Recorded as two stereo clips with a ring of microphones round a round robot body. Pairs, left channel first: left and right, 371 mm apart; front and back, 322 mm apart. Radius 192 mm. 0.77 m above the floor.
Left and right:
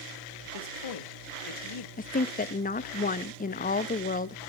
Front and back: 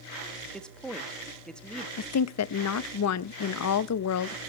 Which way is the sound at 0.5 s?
90° left.